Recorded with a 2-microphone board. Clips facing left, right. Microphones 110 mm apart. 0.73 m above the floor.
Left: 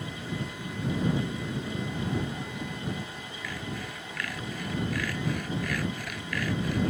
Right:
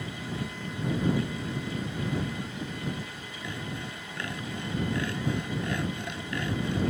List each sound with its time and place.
3.4 s sawing: 25° right (ahead or behind)